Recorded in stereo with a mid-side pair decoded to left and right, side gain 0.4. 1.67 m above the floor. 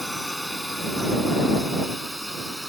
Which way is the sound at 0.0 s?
10° left.